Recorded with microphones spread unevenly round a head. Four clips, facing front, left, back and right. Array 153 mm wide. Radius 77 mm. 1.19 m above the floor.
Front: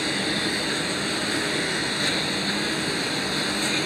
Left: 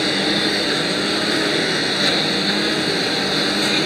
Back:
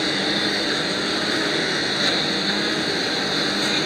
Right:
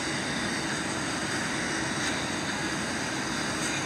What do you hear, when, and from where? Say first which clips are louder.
0.0 s a lawn mower: left 11 dB, back 3 dB; 95° left